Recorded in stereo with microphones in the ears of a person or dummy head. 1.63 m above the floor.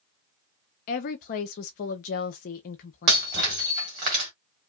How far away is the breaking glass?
About 1.4 m.